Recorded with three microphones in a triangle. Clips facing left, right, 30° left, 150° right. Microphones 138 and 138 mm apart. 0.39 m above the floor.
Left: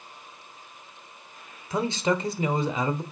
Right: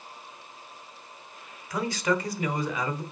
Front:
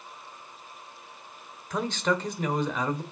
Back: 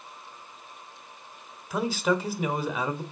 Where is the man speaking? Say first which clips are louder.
Left 2 dB, back 2 dB; 135° left, 1.2 m.